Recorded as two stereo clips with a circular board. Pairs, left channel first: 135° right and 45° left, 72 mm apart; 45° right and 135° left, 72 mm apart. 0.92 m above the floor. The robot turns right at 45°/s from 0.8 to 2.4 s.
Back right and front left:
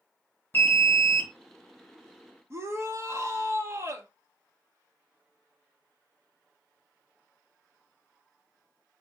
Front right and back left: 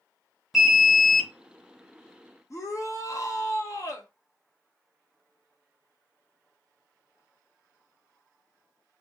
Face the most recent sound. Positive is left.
turn(degrees=0)